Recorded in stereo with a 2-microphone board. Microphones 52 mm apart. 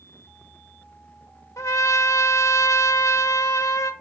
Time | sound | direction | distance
1.6 | a trumpet | 80° left | 0.8 m